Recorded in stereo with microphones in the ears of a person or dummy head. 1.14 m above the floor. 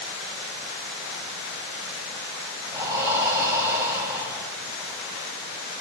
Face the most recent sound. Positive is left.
turn(degrees=-15)  # may be behind; listen again after turning